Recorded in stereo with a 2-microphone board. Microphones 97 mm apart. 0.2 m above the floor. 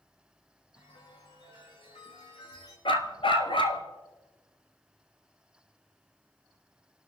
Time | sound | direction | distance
0.8 | a chime | 75° left (ahead or behind) | 6.5 m
2.9 | a dog barking | 65° left (ahead or behind) | 1.3 m